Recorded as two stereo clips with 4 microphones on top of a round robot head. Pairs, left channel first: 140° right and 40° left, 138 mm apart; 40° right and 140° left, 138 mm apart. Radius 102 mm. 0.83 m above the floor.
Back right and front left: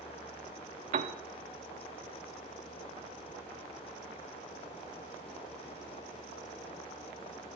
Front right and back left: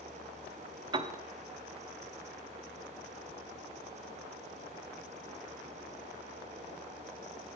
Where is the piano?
80° left, 0.5 m.